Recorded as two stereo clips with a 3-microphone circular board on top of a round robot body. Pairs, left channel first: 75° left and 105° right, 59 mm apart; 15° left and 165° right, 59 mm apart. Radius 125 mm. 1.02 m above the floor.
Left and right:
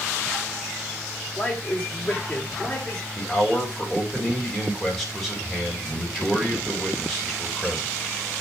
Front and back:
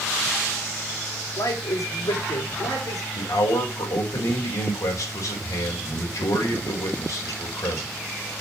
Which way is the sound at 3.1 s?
15° right.